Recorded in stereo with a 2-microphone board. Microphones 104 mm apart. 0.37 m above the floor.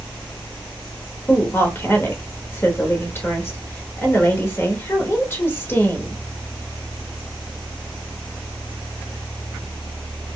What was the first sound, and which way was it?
A woman speaking, 25° left (ahead or behind).